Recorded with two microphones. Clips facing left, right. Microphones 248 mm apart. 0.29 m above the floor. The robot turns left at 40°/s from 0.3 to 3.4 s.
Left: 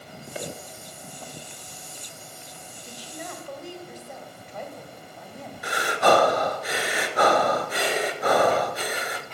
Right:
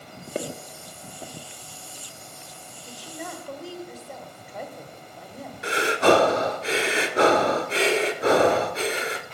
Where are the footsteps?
55° right (ahead or behind), 1.4 m; by 1.3 s 15° right (ahead or behind), 1.4 m.